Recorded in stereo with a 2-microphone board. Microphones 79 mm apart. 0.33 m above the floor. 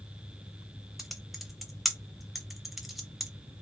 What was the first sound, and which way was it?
Typing on a keyboard, 5° right (ahead or behind).